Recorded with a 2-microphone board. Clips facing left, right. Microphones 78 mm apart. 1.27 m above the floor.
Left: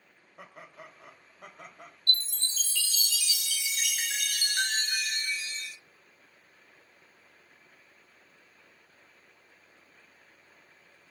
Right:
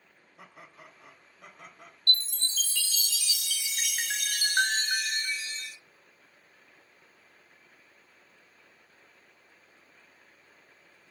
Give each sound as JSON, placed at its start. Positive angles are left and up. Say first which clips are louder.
{"t": 0.4, "sound": "laughter", "louder": "left 3 dB", "side_deg": 55, "distance_m": 1.6}
{"t": 2.1, "sound": "a chime", "louder": "right 2 dB", "side_deg": -55, "distance_m": 0.6}